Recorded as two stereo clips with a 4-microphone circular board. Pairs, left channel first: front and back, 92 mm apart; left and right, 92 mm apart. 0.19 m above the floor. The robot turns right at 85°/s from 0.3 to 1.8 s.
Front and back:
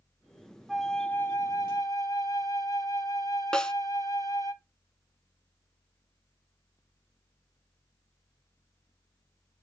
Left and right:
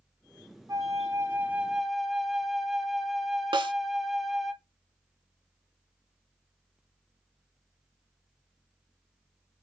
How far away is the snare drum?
About 0.6 m.